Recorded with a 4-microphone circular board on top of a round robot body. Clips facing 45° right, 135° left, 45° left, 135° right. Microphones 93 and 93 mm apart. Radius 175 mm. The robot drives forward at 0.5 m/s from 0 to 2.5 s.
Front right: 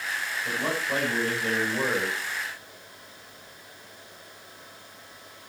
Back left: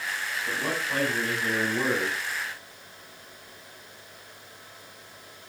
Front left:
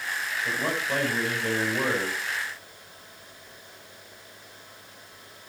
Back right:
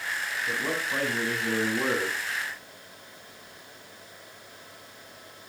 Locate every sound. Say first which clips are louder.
0.5 s a man speaking: front right 2 dB, front left 2 dB; 15° left, 6.5 m